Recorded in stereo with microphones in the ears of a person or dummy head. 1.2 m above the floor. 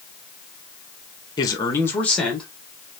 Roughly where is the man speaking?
Left.